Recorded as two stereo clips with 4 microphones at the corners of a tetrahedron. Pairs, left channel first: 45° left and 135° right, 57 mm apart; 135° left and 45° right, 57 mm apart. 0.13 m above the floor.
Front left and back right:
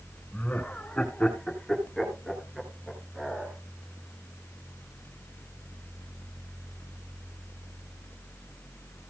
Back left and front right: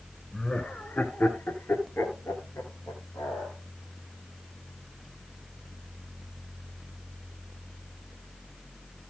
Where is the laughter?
70° left, 1.8 m; by 3.6 s 145° left, 3 m.